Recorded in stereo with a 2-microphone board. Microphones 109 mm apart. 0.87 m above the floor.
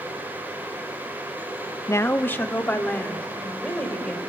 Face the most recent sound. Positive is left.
turn(degrees=10)  # may be behind; listen again after turning